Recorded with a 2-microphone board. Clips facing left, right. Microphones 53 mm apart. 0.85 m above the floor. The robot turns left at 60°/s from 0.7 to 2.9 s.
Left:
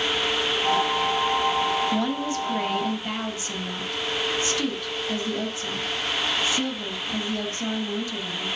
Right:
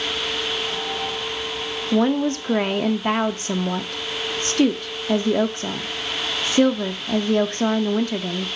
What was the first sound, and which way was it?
A woman speaking, 45° right.